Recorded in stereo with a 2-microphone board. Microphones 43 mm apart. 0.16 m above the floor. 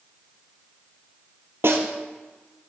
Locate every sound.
1.6 s a snare drum: 65° right (ahead or behind), 1.4 m